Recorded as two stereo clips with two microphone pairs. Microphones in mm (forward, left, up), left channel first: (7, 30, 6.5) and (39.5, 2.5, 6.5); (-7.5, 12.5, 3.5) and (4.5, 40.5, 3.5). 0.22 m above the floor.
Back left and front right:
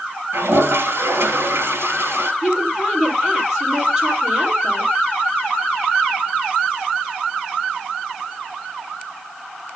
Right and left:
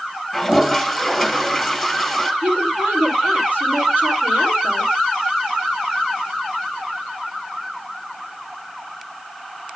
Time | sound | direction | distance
0.3 | a toilet flushing | 20° right | 2.5 m
2.4 | a woman speaking | 40° left | 7.5 m